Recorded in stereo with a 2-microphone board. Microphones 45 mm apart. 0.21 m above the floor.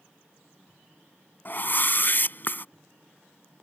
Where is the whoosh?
45° left (ahead or behind).